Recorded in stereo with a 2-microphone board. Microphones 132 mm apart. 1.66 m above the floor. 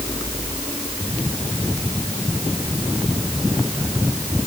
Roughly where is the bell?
No bell in this recording.